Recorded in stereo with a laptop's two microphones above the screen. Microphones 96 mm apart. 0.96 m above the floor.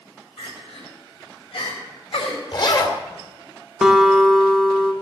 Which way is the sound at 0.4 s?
70° left (ahead or behind).